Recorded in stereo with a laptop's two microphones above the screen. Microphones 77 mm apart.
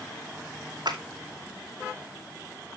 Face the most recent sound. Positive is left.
turn(degrees=-70)  # may be behind; listen again after turning